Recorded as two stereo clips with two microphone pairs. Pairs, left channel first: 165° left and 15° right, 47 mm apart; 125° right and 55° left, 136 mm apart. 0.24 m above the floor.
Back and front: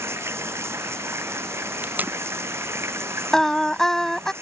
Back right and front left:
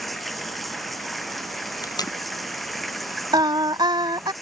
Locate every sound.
0.0 s running water: 35° right
1.8 s tape being pulled: 65° right
3.3 s singing: 90° left